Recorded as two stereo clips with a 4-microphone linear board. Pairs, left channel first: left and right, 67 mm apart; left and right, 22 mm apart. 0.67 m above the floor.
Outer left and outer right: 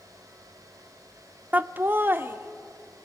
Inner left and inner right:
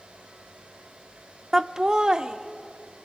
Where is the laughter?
25° right (ahead or behind), 0.6 m; by 3.1 s 30° right (ahead or behind), 2.5 m.